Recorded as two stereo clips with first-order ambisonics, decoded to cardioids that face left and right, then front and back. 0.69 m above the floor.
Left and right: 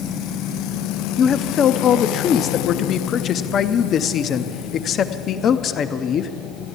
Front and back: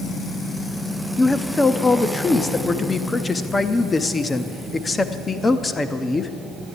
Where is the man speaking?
65° left, 0.6 m.